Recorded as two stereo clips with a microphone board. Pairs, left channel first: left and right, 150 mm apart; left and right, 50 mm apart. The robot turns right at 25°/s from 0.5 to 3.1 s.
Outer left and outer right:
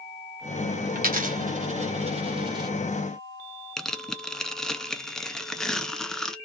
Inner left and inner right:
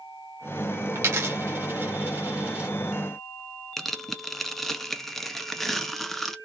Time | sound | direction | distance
0.9 | a dropped coin | 70° right (ahead or behind) | 1.5 m
3.8 | tearing paper | 5° left (ahead or behind) | 0.7 m